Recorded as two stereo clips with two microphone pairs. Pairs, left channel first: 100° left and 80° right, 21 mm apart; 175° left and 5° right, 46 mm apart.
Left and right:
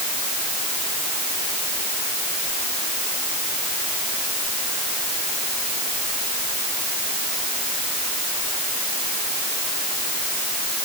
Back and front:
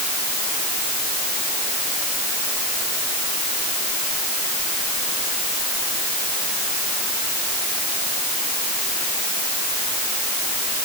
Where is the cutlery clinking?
No cutlery clinking in this recording.